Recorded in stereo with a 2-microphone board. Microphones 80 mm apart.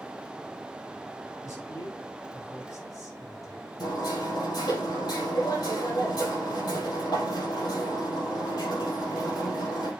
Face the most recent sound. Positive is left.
turn(degrees=55)  # may be behind; listen again after turning